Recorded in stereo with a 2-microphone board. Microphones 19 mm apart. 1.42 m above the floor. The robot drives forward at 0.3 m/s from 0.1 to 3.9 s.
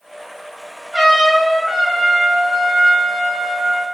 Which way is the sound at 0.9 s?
75° right (ahead or behind).